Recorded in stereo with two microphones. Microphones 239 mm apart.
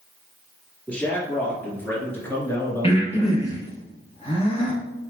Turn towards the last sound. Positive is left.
turn(degrees=25)  # may be behind; listen again after turning